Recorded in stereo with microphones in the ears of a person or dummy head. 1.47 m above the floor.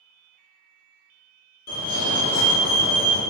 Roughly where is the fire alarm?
Left.